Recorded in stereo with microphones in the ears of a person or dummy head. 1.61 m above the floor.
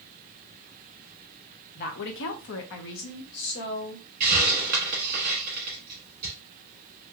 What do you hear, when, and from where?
1.8 s a woman speaking: 35° left (ahead or behind), 0.5 m; by 4.0 s 55° left (ahead or behind), 1.5 m
4.2 s a hiss: 25° right (ahead or behind), 1.2 m